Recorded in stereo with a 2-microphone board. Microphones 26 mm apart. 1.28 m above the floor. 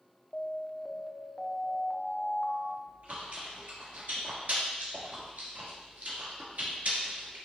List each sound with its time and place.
0.3 s an alarm: 40° left (ahead or behind), 0.7 m
2.9 s chewing: 70° right (ahead or behind), 3 m